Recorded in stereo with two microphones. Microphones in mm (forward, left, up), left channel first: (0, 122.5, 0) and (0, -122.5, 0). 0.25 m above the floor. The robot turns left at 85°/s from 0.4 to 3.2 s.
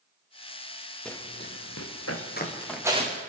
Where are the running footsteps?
Centre (ahead or behind), 1.8 m; by 3.2 s 40° right (ahead or behind), 3.5 m.